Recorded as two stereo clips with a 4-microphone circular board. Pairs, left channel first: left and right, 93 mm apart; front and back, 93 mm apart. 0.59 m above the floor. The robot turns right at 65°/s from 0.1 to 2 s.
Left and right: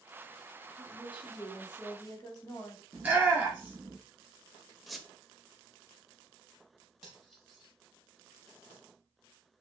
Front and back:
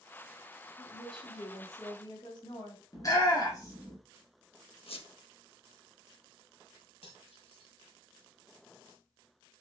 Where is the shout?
20° right, 1.5 m.